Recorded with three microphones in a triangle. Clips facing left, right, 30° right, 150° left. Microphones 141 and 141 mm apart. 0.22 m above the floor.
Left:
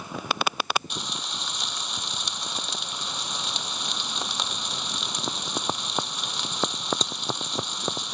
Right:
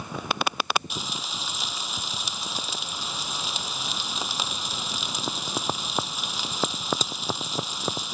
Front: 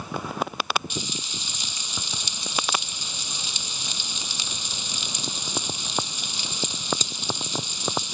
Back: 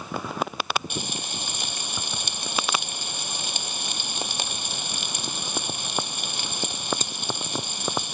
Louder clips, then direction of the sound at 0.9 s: Right 1 dB, back 1 dB; 175° right.